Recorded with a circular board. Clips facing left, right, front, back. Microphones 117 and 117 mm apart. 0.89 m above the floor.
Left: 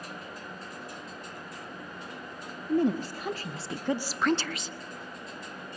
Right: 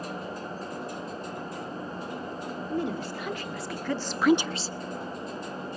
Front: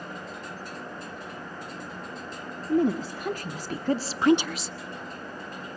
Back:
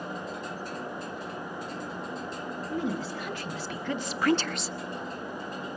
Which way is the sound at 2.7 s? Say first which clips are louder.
Left 6 dB, front 9 dB; 45° left.